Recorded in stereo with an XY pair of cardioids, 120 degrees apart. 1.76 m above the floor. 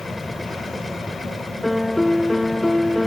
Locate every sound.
0.0 s a machine running: 5° left
1.6 s a piano: 10° left